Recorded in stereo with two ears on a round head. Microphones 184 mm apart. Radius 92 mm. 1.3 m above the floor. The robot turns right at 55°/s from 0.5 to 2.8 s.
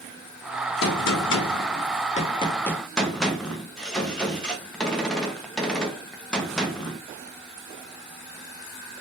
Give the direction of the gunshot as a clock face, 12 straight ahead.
10 o'clock.